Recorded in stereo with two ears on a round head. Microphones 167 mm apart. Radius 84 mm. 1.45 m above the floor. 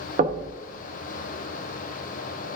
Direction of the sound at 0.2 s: 40° right (ahead or behind).